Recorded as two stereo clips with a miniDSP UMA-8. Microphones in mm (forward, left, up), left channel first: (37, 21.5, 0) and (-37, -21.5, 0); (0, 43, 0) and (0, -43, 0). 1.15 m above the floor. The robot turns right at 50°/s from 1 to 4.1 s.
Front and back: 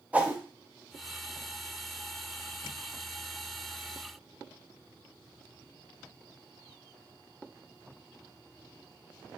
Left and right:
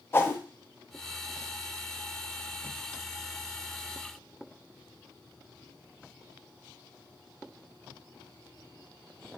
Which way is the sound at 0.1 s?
140° left.